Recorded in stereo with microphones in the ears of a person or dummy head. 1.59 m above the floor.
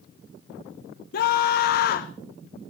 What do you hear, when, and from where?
1.1 s a scream: 50° left (ahead or behind), 1.0 m